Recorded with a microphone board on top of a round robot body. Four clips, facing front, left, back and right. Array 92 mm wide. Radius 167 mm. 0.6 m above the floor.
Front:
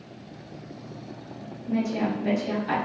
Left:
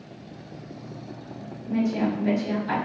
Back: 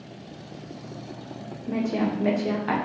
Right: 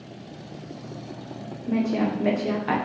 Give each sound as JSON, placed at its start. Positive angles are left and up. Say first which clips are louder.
{"t": 1.7, "sound": "a woman speaking", "louder": "right 1 dB, back 1 dB", "azimuth_deg": -130, "distance_m": 2.5}